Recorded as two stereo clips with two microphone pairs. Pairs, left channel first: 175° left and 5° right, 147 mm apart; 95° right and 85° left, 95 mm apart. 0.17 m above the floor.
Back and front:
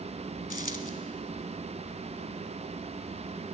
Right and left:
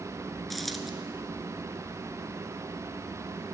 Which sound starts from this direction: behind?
A dropped coin, at 0.5 s.